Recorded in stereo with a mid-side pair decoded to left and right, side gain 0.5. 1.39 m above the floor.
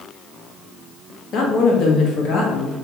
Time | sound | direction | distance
1.3 | a woman speaking | 65° left | 1.0 m